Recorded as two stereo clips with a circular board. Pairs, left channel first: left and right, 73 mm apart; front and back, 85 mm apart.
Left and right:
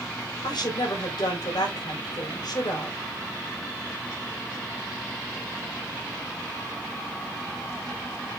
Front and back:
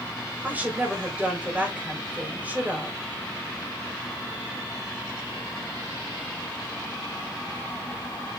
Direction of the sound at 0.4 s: 105° left.